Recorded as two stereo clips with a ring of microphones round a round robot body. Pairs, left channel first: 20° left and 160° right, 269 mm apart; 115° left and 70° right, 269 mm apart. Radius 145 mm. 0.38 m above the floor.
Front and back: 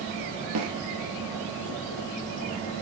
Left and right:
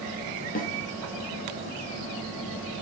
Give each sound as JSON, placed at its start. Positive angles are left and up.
{"t": 0.6, "sound": "a snare drum", "azimuth_deg": 175, "distance_m": 2.0}